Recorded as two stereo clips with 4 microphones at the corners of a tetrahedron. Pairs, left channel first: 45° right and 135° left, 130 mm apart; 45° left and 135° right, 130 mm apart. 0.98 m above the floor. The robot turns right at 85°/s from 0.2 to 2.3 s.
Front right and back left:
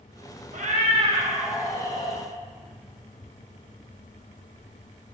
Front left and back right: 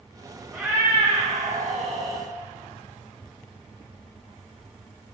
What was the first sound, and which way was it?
A cat meowing, 140° left.